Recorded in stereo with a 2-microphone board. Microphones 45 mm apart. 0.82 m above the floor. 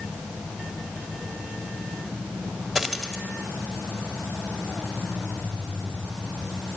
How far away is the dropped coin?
About 1.7 m.